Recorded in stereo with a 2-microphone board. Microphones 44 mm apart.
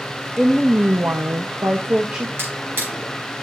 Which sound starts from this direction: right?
A drawer, at 2.4 s.